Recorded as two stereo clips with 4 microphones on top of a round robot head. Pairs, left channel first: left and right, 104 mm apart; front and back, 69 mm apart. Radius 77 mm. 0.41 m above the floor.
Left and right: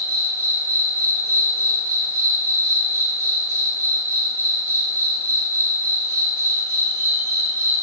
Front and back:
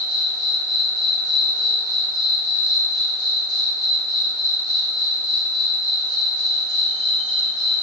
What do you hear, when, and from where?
0.0 s an insect: 165° left, 4.5 m